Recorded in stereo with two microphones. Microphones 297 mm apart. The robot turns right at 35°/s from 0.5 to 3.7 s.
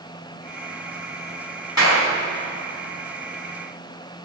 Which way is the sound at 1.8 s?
65° left (ahead or behind).